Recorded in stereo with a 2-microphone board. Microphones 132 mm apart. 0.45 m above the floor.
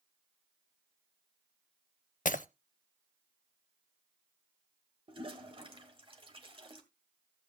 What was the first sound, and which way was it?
Breaking glass, 80° left.